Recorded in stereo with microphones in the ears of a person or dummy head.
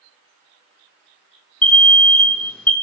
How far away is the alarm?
About 0.5 m.